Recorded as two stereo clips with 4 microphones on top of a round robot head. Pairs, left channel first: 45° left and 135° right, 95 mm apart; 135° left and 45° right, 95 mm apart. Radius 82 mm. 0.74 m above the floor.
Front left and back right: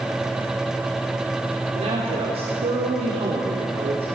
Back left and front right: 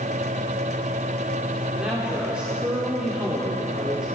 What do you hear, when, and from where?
1.8 s a man speaking: 125° right, 3 m